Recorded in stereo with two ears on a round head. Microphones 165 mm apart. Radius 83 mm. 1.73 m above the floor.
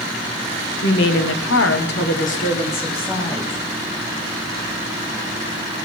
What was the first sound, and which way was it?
A woman speaking, 70° left (ahead or behind).